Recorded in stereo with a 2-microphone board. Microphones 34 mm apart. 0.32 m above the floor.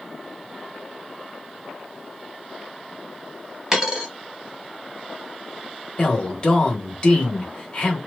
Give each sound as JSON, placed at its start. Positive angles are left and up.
{"t": 3.7, "sound": "a dropped coin", "side_deg": -15, "distance_m": 0.9}
{"t": 6.0, "sound": "a man speaking", "side_deg": 30, "distance_m": 1.0}